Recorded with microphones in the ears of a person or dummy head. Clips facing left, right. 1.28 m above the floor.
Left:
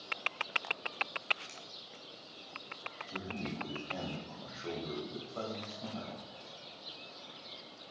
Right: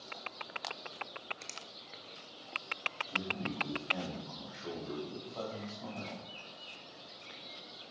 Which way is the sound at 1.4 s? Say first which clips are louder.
Right 1 dB; 60° right (ahead or behind).